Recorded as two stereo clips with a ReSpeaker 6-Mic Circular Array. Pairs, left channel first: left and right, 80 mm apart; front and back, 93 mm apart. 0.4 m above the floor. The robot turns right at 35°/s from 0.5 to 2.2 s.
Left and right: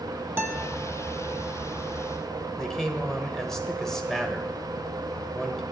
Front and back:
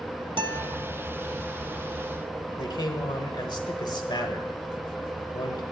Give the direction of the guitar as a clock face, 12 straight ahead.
5 o'clock.